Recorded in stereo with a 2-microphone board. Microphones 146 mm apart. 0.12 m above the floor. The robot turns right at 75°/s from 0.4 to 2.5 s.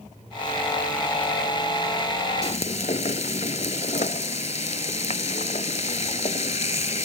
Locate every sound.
2.4 s frying: 45° left (ahead or behind); by 7.1 s 50° left (ahead or behind)